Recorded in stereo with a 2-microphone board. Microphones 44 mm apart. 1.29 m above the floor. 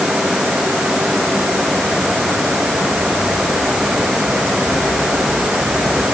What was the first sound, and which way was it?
Only background noise.